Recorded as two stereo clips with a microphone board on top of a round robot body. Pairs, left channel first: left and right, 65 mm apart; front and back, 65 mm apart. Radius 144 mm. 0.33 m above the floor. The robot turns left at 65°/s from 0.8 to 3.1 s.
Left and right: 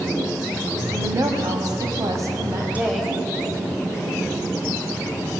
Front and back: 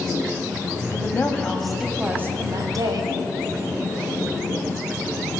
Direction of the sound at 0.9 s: 40° right.